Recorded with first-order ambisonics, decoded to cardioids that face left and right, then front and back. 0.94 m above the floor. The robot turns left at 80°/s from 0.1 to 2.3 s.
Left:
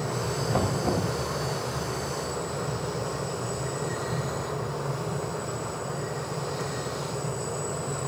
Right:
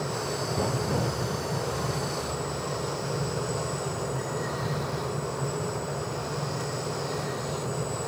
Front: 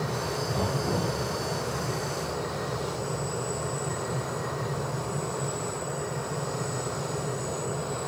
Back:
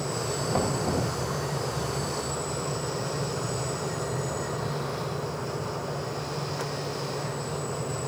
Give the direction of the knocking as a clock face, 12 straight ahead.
8 o'clock.